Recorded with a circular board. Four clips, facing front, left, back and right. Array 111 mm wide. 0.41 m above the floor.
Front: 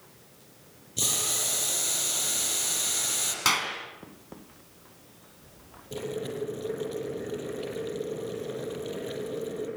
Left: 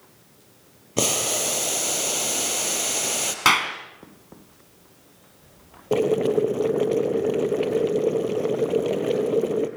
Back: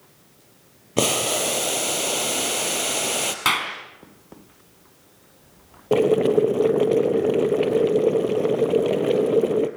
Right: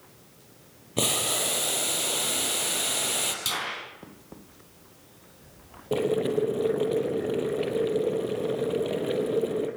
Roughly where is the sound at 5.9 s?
Behind.